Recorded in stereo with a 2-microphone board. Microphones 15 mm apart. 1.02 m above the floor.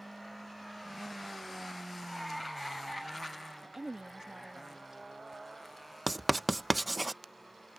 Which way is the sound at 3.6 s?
45° right (ahead or behind).